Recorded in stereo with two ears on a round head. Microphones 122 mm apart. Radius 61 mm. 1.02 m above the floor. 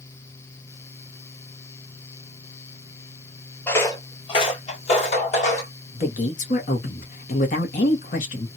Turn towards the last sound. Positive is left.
turn(degrees=60)  # may be behind; listen again after turning